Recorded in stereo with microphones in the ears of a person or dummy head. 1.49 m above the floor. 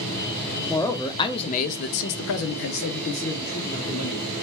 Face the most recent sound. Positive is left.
turn(degrees=40)  # may be behind; listen again after turning